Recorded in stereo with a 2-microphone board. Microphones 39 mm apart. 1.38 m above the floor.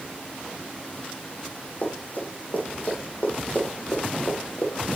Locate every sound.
1.8 s running footsteps: 50° left (ahead or behind), 4 m; by 5.0 s 40° left (ahead or behind), 2 m